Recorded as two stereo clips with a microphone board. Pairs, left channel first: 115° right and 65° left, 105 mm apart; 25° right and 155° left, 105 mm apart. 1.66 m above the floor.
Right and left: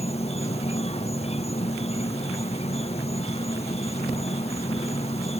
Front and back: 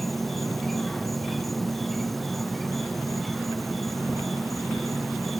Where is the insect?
110° right.